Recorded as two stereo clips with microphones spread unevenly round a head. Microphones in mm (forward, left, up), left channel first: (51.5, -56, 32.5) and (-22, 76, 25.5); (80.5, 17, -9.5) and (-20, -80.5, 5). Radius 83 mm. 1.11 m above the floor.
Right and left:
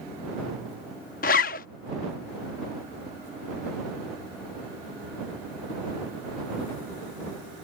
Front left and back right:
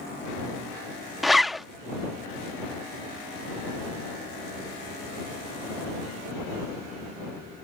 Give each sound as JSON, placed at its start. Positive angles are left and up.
{"t": 1.2, "sound": "a zipper", "azimuth_deg": -50}